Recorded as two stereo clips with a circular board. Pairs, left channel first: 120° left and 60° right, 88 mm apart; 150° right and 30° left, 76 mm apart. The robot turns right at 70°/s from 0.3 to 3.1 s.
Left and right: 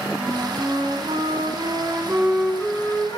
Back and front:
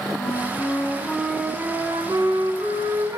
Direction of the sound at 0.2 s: 125° right.